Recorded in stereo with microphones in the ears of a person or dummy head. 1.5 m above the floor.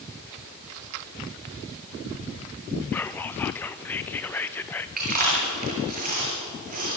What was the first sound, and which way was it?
Whispering, 10° left (ahead or behind).